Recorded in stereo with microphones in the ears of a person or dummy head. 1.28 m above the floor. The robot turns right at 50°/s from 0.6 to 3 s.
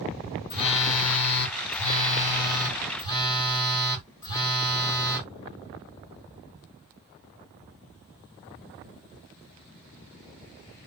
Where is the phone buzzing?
35° left, 1.5 m; by 5.3 s 155° left, 1.5 m.